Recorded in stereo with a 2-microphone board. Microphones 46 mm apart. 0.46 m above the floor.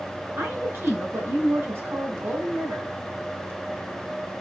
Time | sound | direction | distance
0.4 | a woman speaking | 60° right (ahead or behind) | 3.5 m